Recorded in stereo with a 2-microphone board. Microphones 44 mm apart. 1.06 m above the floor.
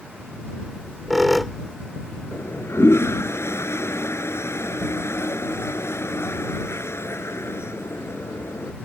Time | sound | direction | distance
0.7 | a squeak | centre (ahead or behind) | ?
2.3 | a toilet flushing | 80° left | ?